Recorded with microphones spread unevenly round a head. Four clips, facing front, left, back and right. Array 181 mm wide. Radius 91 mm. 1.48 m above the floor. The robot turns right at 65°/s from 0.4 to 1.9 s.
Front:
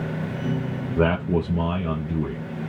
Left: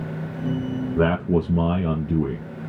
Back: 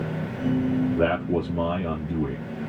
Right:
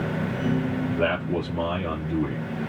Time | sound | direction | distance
1.0 | a man speaking | 30° left | 1.4 m